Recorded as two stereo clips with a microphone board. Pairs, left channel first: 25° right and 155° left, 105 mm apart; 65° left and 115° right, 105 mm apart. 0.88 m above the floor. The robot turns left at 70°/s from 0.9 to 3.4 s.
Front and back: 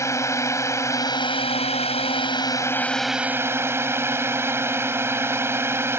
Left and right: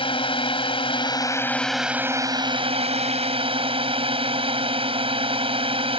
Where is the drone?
40° left; by 6.0 s 135° right.